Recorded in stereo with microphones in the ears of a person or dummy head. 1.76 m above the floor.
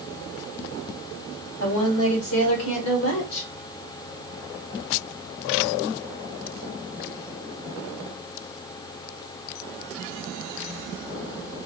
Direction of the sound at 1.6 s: 80° left.